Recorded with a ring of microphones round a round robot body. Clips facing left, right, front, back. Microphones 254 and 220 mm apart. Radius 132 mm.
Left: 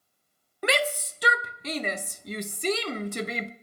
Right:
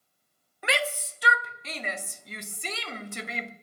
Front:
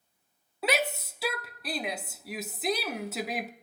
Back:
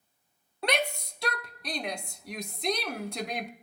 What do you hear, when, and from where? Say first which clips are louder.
0.6 s a shout: left 4 dB, front 1 dB; 85° left, 0.8 m